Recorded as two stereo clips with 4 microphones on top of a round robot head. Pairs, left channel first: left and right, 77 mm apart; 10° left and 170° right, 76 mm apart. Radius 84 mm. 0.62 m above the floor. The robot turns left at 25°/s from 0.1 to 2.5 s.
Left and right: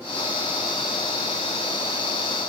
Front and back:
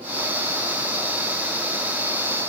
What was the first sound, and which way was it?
Only background noise.